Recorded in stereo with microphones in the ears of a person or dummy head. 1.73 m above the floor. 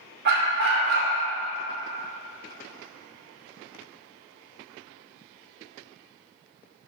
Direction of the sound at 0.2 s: 55° right (ahead or behind).